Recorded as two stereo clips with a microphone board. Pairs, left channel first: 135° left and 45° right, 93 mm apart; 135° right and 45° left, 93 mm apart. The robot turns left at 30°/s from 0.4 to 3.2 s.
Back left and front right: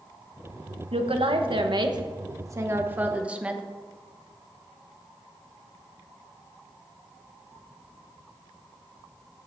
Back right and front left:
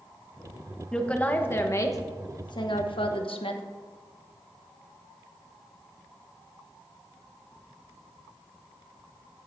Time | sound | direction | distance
0.9 | a woman speaking | 55° right | 1.1 m